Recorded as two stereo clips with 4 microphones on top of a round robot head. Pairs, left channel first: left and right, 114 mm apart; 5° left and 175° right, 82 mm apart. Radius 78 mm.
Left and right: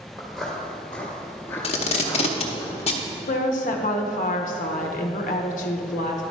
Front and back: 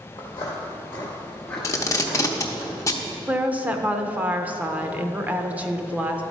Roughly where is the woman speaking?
Behind left.